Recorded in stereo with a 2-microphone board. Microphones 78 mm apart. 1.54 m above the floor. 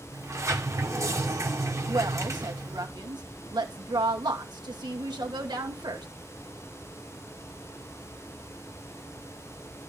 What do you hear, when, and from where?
0.1 s a sliding door: 40° right (ahead or behind), 1.8 m
1.9 s a woman speaking: 70° right (ahead or behind), 2.5 m